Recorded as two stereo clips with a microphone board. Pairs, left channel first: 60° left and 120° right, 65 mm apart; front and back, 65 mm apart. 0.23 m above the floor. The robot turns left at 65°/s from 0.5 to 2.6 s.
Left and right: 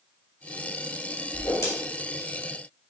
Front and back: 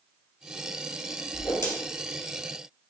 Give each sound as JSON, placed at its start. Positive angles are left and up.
{"t": 1.3, "sound": "a whoosh", "azimuth_deg": 40, "distance_m": 2.5}